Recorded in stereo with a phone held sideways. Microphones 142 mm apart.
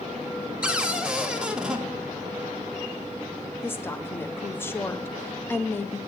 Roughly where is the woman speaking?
Centre.